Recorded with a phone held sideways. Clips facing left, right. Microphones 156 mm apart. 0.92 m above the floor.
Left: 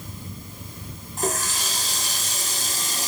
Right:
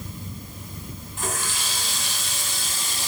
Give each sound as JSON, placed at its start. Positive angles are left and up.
{"t": 1.2, "sound": "a running tap", "side_deg": 40, "distance_m": 1.4}